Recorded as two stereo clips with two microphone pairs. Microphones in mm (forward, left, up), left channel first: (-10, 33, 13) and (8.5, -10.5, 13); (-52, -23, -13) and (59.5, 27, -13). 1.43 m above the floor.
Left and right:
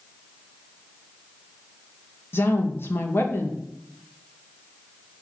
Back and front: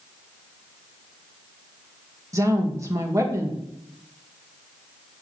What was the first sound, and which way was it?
A woman speaking, 85° left.